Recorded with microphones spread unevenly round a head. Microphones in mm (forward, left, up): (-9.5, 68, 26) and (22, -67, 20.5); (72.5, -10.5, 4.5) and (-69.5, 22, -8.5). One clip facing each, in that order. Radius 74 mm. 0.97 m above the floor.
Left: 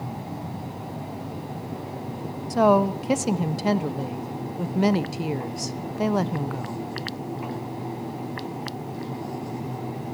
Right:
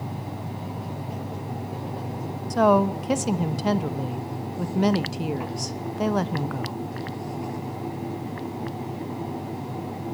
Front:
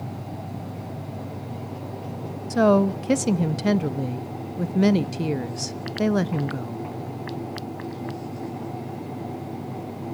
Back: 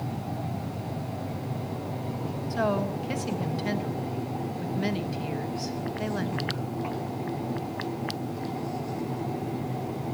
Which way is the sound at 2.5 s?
15° left.